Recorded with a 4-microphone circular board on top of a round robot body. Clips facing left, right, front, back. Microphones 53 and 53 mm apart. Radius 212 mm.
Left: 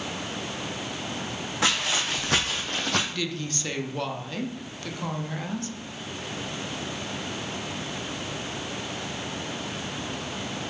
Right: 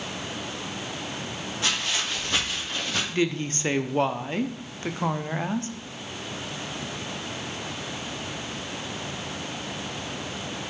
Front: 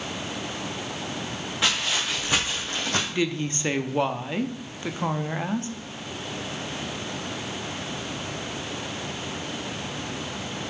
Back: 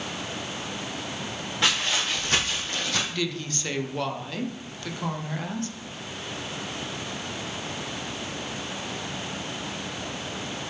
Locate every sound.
1.6 s footsteps: 90° left, 3 m; by 3.0 s 50° left, 1.6 m
3.1 s a woman speaking: 50° right, 0.9 m